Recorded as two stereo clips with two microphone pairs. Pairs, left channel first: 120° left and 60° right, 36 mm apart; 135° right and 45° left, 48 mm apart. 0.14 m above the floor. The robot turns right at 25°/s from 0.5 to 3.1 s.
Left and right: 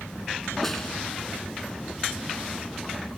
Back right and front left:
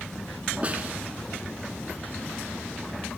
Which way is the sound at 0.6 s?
45° left.